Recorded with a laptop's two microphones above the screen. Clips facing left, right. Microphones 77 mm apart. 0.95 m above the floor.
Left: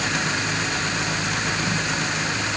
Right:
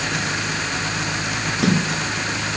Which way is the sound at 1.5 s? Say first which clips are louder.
Right 4 dB; 75° right (ahead or behind).